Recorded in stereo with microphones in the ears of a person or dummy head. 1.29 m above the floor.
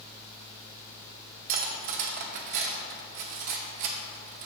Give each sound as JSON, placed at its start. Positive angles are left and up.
{"t": 1.5, "sound": "cutlery clinking", "side_deg": -45, "distance_m": 0.7}